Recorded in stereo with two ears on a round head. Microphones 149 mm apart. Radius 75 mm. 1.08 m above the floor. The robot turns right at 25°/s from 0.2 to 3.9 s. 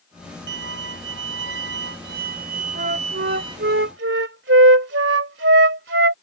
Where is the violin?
105° right; by 3.7 s 20° right.